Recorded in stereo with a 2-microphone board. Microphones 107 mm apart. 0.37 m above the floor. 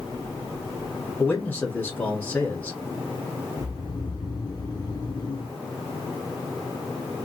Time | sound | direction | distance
1.2 | a man speaking | 15° left (ahead or behind) | 1.4 m
3.6 | snoring | 35° left (ahead or behind) | 1.2 m